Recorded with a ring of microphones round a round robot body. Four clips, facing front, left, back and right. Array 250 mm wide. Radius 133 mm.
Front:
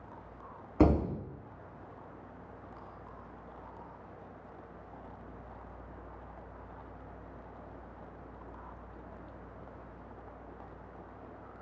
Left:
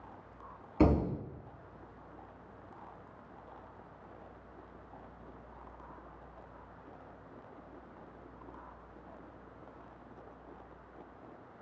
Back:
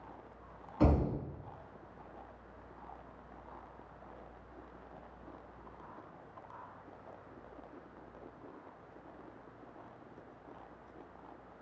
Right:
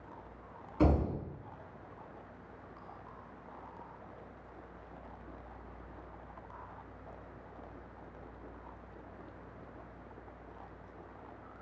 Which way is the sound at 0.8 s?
20° left.